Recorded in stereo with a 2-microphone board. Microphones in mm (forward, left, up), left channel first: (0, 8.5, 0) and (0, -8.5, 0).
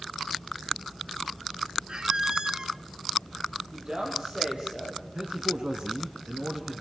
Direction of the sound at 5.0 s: 60° right (ahead or behind).